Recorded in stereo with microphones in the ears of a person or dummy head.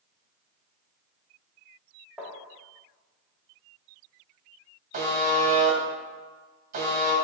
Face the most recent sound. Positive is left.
turn(degrees=-45)  # may be behind; listen again after turning